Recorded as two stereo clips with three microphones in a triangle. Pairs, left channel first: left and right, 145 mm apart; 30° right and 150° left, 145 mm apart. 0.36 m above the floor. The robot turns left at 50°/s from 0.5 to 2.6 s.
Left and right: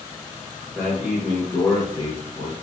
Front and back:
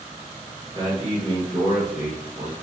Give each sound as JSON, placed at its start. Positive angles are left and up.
{"t": 0.8, "sound": "a man speaking", "azimuth_deg": 180, "distance_m": 1.0}